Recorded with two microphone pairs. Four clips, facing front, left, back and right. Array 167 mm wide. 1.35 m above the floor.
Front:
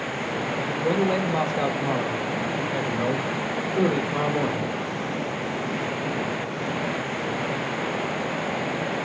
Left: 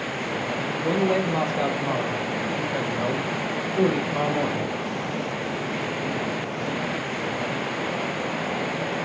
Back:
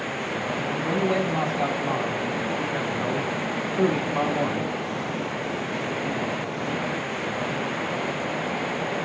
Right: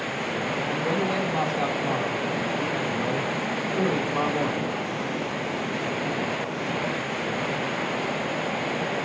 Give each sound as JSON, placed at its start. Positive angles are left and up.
{"t": 0.6, "sound": "a man speaking", "azimuth_deg": 10, "distance_m": 3.5}